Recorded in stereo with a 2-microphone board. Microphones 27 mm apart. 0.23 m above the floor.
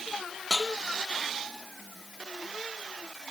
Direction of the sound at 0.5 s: 5° right (ahead or behind).